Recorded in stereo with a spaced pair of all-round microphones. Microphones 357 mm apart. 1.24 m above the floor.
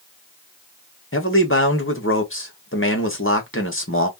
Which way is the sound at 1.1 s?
35° left (ahead or behind).